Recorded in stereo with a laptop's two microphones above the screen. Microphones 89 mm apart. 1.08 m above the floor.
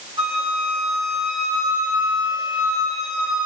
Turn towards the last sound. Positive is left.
turn(degrees=-60)  # may be behind; listen again after turning